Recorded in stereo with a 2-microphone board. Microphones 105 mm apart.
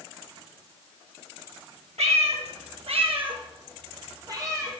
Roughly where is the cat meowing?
Right.